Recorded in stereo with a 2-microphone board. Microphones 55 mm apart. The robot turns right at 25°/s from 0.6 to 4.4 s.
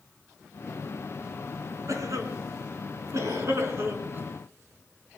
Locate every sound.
1.9 s a cough: 70° right (ahead or behind), 3.5 m; by 4.3 s 40° right (ahead or behind), 3.5 m